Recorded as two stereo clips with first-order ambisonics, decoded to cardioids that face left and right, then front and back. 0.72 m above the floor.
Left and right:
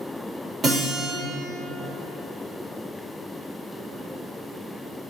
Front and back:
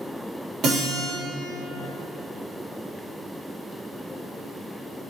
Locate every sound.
0.6 s a guitar: 150° right, 1.7 m